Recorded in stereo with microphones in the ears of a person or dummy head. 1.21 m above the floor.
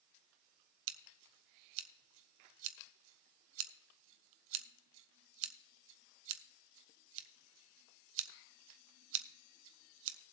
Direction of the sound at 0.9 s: 70° right (ahead or behind).